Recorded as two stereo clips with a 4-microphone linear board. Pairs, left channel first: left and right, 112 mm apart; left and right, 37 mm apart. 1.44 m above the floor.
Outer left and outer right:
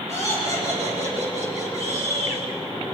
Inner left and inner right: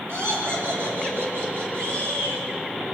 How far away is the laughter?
About 7.5 m.